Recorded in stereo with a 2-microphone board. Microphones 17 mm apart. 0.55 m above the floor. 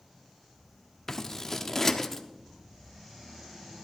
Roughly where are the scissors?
Left.